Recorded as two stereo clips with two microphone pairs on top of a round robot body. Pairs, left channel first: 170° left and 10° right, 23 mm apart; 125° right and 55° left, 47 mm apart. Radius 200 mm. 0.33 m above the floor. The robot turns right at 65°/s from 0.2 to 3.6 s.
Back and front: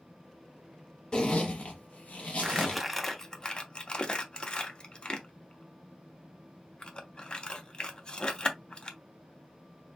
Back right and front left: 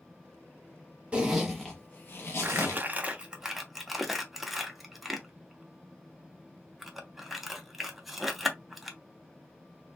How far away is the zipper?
About 0.8 m.